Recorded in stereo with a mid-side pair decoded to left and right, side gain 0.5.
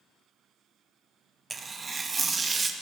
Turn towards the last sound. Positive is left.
turn(degrees=-30)